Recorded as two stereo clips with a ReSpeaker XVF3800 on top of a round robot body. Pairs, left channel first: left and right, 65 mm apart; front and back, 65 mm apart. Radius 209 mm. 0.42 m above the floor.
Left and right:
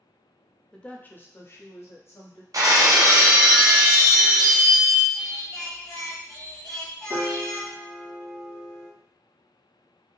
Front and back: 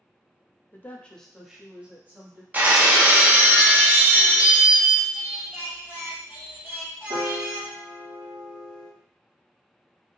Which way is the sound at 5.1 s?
115° left.